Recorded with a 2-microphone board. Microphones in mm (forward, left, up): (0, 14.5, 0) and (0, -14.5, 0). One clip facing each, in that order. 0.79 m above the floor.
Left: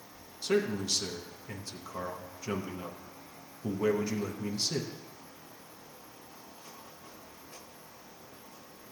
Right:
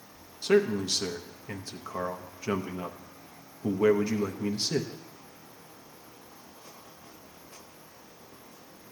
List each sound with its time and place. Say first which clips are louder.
0.4 s a man speaking: right 5 dB; 25° right (ahead or behind), 0.7 m